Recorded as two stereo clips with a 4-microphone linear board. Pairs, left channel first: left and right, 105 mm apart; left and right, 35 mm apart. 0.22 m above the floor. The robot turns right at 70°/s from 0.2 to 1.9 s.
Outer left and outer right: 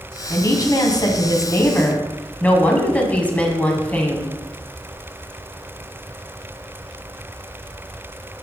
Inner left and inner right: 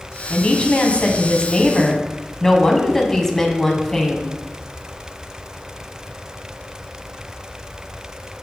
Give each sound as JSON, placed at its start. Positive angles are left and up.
{"t": 0.3, "sound": "a woman speaking", "azimuth_deg": 45, "distance_m": 1.2}